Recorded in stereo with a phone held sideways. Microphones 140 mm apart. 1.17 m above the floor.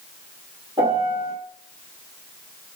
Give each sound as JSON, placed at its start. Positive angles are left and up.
{"t": 0.8, "sound": "a piano", "side_deg": -30, "distance_m": 1.6}